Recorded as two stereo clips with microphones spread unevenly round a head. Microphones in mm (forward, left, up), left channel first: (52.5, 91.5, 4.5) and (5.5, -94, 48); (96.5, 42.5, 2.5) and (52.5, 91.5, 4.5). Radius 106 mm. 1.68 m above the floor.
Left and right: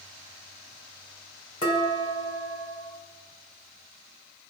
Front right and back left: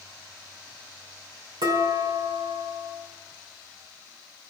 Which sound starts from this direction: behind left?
Dishes clattering, at 1.6 s.